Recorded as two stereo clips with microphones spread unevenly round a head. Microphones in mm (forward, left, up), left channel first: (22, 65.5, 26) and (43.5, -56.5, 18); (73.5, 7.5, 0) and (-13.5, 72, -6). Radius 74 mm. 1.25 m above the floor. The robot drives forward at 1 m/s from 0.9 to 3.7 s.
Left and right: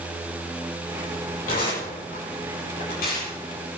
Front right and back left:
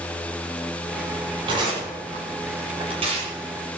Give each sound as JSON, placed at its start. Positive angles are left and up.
{"t": 1.5, "sound": "tearing paper", "azimuth_deg": 100, "distance_m": 8.0}